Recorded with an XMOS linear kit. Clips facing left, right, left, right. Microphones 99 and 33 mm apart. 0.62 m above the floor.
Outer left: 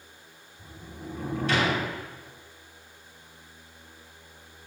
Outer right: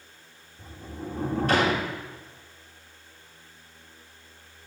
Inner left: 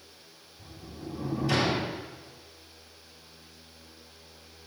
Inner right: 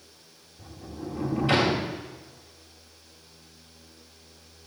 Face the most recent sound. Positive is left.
turn(degrees=-45)  # may be behind; listen again after turning